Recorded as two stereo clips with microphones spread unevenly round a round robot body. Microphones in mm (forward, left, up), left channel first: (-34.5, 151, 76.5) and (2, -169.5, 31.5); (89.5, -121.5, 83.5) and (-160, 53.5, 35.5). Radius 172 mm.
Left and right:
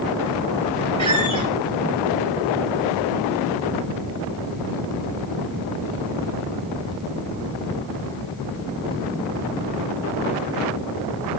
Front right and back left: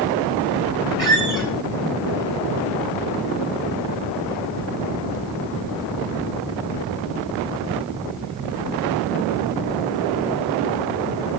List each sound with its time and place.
1.0 s a squeak: 125° right, 3 m